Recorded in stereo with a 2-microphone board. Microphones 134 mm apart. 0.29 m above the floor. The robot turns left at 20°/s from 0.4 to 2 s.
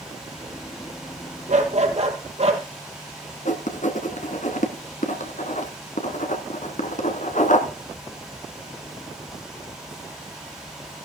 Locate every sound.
1.5 s a dog barking: 65° right (ahead or behind), 2 m; by 2.6 s 55° right (ahead or behind), 2 m
3.5 s writing: 70° left (ahead or behind), 1.5 m